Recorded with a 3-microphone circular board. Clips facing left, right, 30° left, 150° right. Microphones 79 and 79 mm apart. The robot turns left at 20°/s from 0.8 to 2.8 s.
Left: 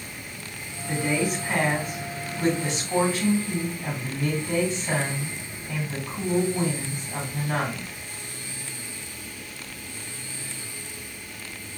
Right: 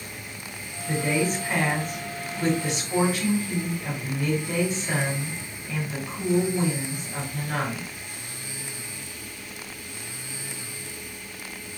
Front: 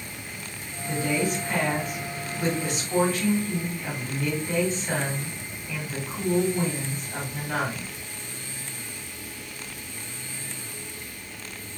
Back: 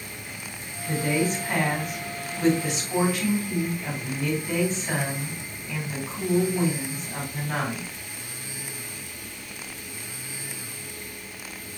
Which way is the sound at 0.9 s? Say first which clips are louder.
Right 1 dB, back 1 dB; straight behind.